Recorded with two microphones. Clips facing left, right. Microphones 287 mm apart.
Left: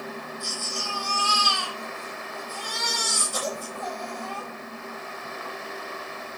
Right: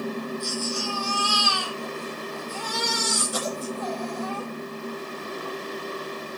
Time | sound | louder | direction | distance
0.4 | a baby crying | right 7 dB | 75° right (ahead or behind) | 9.5 m